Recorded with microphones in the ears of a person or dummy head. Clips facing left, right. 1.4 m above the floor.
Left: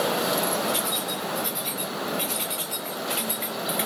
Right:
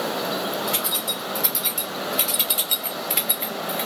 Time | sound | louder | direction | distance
0.7 | keys jangling | left 1 dB | 65° right (ahead or behind) | 3 m